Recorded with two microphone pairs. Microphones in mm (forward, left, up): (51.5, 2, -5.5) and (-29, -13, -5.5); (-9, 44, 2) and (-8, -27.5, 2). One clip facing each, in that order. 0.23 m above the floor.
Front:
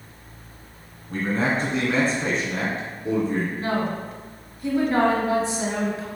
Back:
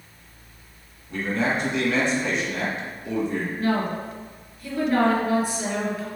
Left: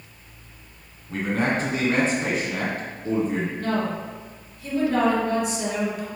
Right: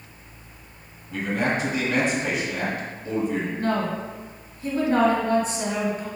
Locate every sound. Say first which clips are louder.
1.1 s a man speaking: front 1 dB, left 1 dB; 40° left, 1.8 m
3.6 s a woman speaking: back 1 dB, right 1 dB; 45° right, 1.8 m